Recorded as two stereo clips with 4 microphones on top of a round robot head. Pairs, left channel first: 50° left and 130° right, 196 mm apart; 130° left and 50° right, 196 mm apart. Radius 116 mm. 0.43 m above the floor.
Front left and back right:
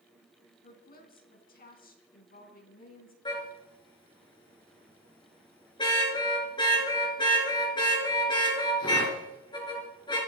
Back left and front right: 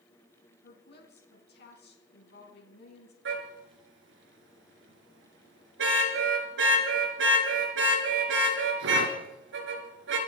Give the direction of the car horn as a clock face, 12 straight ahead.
1 o'clock.